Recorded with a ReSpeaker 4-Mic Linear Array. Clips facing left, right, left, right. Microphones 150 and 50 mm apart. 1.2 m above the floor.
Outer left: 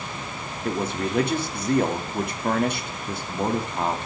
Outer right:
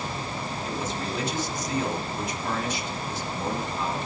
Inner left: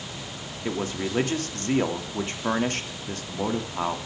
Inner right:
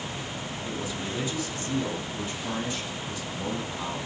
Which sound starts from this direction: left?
A man speaking, at 0.7 s.